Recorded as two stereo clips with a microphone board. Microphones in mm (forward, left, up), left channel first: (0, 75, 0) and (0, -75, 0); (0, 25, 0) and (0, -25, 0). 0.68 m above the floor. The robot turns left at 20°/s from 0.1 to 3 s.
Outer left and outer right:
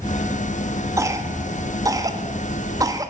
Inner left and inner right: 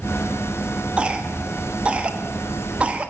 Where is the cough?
20° right (ahead or behind), 1.0 m; by 3.1 s 25° right (ahead or behind), 1.0 m.